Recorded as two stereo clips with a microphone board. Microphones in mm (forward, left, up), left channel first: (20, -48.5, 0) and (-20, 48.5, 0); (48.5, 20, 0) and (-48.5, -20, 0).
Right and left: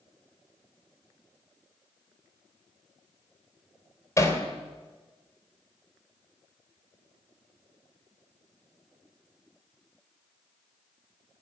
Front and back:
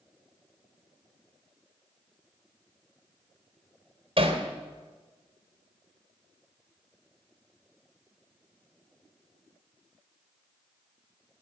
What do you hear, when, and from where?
4.2 s hammering: 130° right, 3 m